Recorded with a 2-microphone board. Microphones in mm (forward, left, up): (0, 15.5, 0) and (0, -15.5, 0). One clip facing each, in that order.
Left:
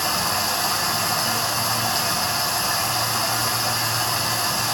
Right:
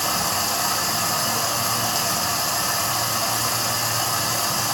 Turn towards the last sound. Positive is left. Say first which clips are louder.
# left 1 dB
turn(degrees=30)  # may be behind; listen again after turning